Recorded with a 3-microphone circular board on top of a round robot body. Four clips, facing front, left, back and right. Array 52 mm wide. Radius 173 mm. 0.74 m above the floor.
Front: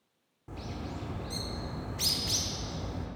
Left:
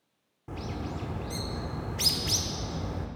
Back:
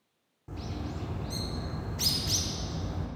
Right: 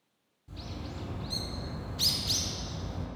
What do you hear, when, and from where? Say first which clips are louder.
0.5 s a bird: left 6 dB, back 1 dB; 85° left, 1.3 m